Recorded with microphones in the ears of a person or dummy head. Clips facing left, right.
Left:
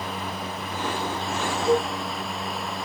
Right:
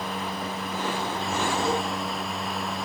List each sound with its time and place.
1.6 s a cowbell: 30° right (ahead or behind), 1.3 m